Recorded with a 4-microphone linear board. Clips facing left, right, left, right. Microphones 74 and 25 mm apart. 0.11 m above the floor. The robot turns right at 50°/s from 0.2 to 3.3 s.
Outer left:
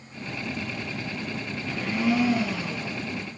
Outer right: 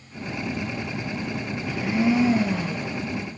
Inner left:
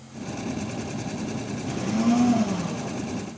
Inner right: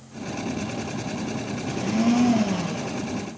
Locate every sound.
1.6 s a blender: 175° right, 0.9 m; by 3.0 s 110° right, 0.9 m